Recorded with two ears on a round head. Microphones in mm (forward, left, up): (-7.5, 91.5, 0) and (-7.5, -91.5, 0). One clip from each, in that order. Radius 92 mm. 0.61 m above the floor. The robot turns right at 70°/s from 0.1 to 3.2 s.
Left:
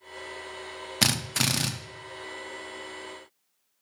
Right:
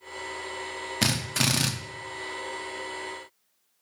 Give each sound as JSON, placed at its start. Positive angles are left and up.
{"t": 1.0, "sound": "a drill", "azimuth_deg": 135, "distance_m": 0.6}